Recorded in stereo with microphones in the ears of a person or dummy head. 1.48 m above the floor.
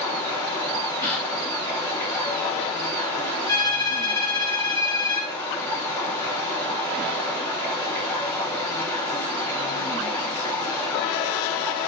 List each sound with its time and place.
0.0 s running water: 10° left (ahead or behind), 3.5 m
1.0 s a gasp: 15° left (ahead or behind), 0.9 m
3.5 s a violin: 20° left (ahead or behind), 2.5 m